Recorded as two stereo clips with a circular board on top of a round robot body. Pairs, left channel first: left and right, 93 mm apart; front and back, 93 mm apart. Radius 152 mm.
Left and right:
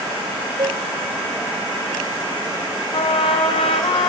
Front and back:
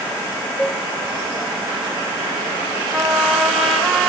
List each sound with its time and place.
0.6 s a cowbell: 80° right, 2.5 m
2.9 s a trumpet: 95° left, 3 m